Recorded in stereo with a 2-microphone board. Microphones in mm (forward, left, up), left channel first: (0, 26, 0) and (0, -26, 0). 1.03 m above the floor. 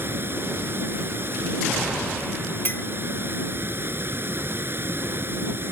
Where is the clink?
45° left (ahead or behind).